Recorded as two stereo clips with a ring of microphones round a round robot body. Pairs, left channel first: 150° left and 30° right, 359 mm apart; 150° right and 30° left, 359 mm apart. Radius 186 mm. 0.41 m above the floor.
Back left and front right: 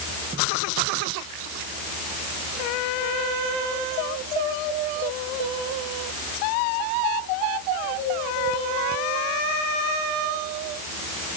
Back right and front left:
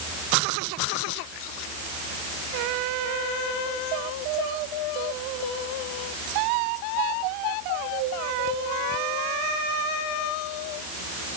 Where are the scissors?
No scissors in this recording.